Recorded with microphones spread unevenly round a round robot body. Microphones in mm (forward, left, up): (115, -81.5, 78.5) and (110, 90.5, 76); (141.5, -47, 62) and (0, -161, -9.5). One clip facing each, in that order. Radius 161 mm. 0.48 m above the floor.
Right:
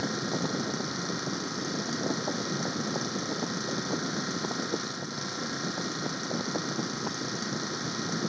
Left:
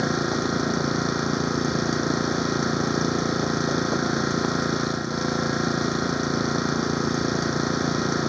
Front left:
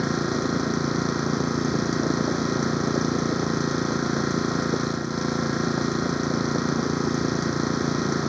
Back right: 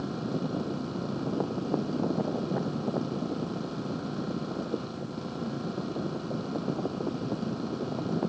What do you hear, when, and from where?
0.0 s an engine running: 70° left